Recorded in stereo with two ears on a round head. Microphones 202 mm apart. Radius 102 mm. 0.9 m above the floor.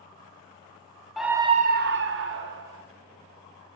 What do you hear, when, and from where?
1.2 s a scream: centre (ahead or behind), 0.6 m; by 2.8 s 55° right (ahead or behind), 1.2 m